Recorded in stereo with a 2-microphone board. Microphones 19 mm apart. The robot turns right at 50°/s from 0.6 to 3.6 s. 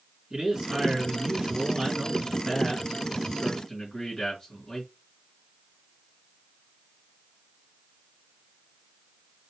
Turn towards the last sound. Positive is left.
turn(degrees=40)